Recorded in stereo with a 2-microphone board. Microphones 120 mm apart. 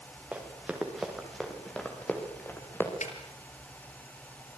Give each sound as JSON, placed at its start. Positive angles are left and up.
{"t": 0.3, "sound": "running footsteps", "side_deg": -10, "distance_m": 6.0}
{"t": 3.0, "sound": "a snare drum", "side_deg": 75, "distance_m": 4.0}